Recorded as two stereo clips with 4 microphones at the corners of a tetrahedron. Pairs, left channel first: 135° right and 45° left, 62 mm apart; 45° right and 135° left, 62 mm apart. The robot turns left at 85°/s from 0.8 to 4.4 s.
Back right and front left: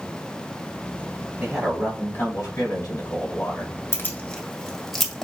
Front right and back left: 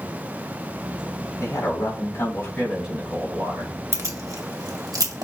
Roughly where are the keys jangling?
Behind.